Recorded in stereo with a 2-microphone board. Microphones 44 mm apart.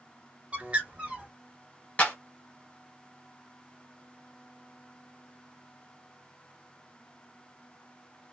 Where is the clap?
30° left (ahead or behind), 1.5 m.